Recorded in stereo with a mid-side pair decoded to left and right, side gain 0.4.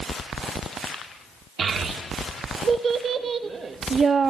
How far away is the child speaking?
About 2.5 m.